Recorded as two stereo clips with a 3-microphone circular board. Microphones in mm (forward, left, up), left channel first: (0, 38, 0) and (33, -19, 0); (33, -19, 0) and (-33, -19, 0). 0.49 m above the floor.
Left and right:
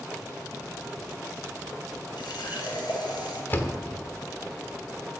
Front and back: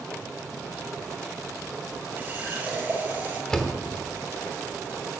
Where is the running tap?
115° left, 6 m.